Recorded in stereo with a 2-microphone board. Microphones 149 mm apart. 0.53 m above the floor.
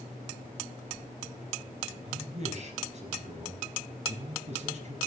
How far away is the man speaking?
About 5 m.